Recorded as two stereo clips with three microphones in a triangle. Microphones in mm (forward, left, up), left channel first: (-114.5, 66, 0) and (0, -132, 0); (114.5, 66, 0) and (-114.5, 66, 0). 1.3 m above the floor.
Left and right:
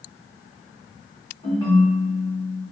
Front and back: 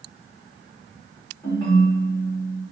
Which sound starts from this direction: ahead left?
A ringtone, at 1.4 s.